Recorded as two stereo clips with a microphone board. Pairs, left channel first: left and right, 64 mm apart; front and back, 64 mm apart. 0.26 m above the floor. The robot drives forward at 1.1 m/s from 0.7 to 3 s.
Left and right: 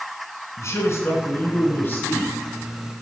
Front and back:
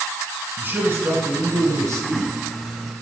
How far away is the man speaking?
About 2 m.